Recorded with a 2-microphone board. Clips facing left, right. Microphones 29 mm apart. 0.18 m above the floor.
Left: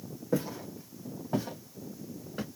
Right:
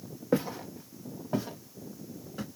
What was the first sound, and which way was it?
Footsteps, 35° right (ahead or behind).